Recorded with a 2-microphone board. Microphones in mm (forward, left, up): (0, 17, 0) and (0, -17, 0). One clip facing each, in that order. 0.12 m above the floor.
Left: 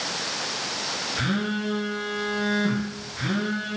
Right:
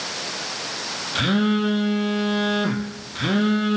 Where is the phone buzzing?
55° right (ahead or behind), 4 m.